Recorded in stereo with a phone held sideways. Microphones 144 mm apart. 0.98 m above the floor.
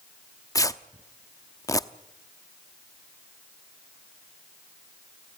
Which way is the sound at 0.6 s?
25° left (ahead or behind).